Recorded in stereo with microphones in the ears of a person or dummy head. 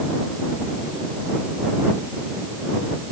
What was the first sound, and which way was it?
Only background noise.